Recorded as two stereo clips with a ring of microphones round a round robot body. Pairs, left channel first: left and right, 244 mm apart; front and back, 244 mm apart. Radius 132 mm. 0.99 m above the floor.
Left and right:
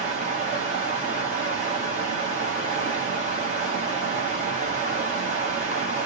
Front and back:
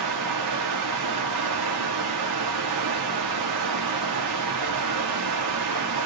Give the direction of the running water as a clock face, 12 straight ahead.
5 o'clock.